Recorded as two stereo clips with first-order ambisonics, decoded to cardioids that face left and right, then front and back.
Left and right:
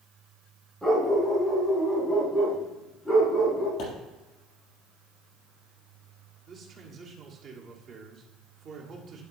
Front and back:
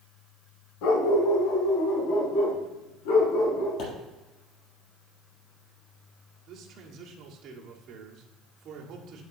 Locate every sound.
0.8 s a dog barking: straight ahead, 1.3 m; by 3.7 s 10° left, 4 m
3.8 s a pop: 45° left, 4 m
6.5 s a man speaking: 135° right, 1.5 m